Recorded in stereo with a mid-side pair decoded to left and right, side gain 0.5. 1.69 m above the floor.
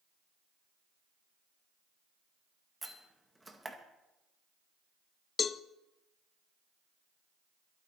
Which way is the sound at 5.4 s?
40° left.